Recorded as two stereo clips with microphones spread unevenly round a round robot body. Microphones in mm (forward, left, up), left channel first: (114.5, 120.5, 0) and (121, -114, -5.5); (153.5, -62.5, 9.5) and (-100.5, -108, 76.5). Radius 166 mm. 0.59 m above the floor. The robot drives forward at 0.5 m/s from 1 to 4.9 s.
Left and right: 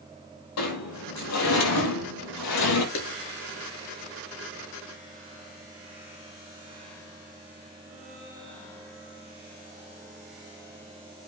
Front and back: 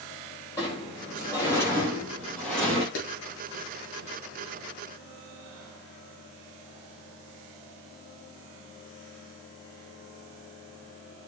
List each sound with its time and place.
0.6 s a sliding door: 90° left, 5 m; by 2.9 s 100° left, 5 m
3.0 s a clap: 70° left, 8.5 m